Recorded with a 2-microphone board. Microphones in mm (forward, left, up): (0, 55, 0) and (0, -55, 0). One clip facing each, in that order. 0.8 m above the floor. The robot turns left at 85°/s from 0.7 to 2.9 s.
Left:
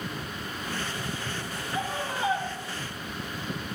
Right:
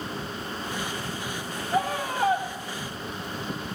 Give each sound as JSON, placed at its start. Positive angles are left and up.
{"t": 1.7, "sound": "a scream", "azimuth_deg": -75, "distance_m": 2.0}